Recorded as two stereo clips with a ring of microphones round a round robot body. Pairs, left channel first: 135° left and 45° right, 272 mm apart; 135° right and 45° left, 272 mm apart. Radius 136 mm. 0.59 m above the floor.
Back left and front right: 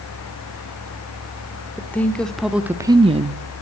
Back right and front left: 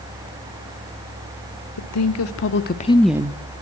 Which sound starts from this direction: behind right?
A woman speaking, at 1.8 s.